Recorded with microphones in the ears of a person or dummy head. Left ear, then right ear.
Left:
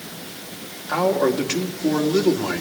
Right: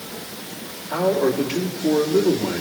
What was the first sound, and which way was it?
A man speaking, 60° left (ahead or behind).